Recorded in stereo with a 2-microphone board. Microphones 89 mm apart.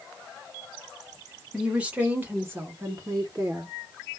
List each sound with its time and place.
1.5 s a woman speaking: 10° right (ahead or behind), 1.5 m; by 3.7 s 40° right (ahead or behind), 1.4 m